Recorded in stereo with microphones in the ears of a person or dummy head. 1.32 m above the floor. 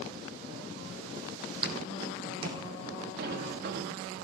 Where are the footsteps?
25° right (ahead or behind), 2.5 m; by 2.6 s 30° right (ahead or behind), 4 m.